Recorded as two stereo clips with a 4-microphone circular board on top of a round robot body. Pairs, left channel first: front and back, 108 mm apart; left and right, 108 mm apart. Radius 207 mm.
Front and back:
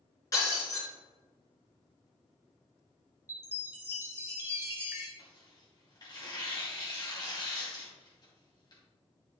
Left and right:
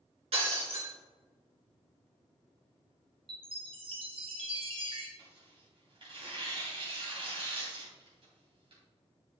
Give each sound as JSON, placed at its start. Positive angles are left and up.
{"t": 0.3, "sound": "breaking glass", "azimuth_deg": -60, "distance_m": 3.5}
{"t": 3.3, "sound": "a chime", "azimuth_deg": -115, "distance_m": 2.0}
{"t": 5.2, "sound": "tearing paper", "azimuth_deg": -50, "distance_m": 3.0}